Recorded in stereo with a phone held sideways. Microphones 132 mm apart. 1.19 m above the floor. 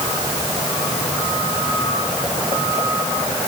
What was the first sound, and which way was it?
Only background noise.